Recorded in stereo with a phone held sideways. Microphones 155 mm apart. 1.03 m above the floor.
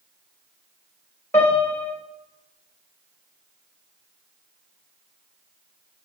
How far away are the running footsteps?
I don't hear running footsteps.